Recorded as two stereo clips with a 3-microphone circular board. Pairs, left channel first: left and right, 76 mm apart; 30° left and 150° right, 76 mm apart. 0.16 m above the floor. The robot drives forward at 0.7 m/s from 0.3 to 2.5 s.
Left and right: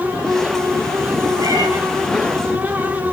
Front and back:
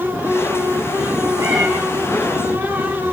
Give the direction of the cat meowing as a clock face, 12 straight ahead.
4 o'clock.